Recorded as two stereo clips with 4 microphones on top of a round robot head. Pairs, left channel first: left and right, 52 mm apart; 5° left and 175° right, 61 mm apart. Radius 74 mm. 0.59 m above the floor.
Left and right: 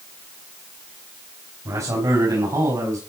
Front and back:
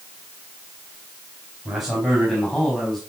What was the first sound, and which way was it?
A man speaking, 90° right.